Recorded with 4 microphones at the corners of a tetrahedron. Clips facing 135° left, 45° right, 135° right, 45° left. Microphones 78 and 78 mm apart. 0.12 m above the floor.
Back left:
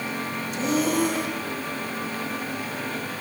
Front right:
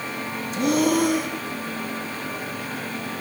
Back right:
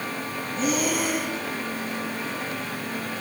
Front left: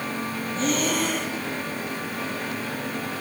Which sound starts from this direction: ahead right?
Breathing, at 0.6 s.